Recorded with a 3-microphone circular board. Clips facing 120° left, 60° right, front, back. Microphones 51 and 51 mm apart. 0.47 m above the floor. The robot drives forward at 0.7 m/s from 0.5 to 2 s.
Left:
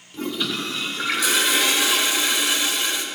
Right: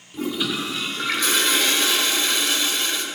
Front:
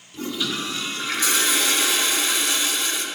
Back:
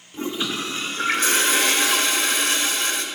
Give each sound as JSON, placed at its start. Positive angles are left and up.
{"t": 0.1, "sound": "a toilet flushing", "azimuth_deg": -140, "distance_m": 1.0}